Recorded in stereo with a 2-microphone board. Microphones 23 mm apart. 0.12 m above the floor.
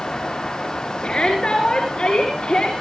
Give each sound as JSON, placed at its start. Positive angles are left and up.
{"t": 1.0, "sound": "a shout", "side_deg": 50, "distance_m": 9.5}